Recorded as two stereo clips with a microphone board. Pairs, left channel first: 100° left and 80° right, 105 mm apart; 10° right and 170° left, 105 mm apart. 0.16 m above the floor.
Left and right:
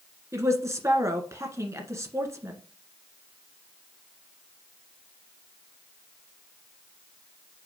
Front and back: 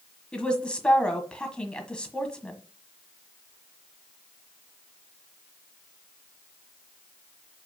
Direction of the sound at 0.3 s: 80° right.